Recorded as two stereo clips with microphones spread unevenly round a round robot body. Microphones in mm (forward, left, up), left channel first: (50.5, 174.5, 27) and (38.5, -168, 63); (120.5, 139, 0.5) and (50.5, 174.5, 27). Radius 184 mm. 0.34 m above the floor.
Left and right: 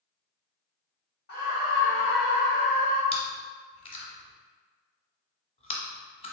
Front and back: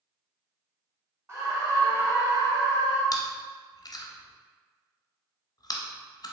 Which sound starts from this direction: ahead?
Chewing, at 3.1 s.